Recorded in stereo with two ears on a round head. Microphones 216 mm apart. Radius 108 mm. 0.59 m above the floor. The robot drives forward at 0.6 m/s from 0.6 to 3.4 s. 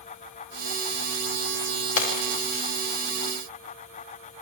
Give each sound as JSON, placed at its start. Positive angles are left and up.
{"t": 2.0, "sound": "breaking glass", "side_deg": 65, "distance_m": 8.0}